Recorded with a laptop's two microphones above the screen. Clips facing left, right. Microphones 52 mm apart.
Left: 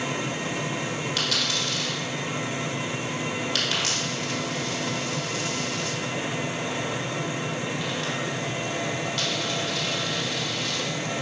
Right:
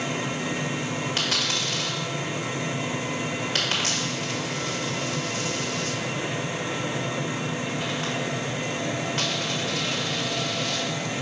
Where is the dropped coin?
30° right (ahead or behind), 1.6 m.